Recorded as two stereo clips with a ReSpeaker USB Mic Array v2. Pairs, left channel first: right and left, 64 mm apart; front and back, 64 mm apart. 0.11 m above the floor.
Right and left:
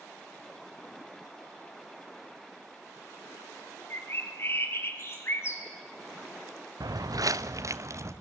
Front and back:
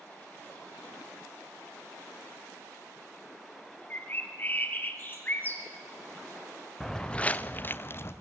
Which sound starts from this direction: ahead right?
A bird, at 3.9 s.